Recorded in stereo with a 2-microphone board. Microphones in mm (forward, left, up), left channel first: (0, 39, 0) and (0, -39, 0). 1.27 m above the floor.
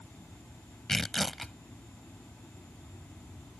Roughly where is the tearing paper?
Centre.